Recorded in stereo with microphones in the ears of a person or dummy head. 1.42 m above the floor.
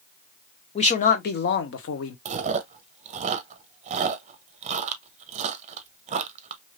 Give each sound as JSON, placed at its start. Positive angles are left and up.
{"t": 0.8, "sound": "a man speaking", "side_deg": 35, "distance_m": 0.9}
{"t": 2.2, "sound": "chewing", "side_deg": -35, "distance_m": 0.5}